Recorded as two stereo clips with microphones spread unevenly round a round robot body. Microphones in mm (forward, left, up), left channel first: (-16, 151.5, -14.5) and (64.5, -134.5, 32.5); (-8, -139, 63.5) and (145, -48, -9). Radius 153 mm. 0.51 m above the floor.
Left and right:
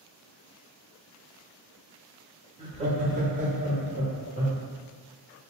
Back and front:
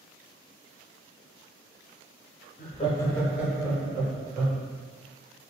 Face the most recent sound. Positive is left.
turn(degrees=-5)